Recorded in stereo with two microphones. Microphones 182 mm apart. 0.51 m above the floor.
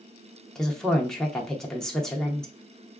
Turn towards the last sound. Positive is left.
turn(degrees=5)  # may be behind; listen again after turning